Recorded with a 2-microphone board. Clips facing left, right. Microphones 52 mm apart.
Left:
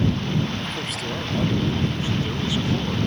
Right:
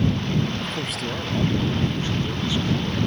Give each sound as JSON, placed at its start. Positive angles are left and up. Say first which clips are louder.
{"t": 0.6, "sound": "a man speaking", "louder": "right 1 dB", "side_deg": -5}